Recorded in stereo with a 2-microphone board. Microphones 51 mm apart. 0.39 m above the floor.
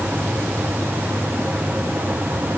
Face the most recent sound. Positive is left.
No sound to turn to.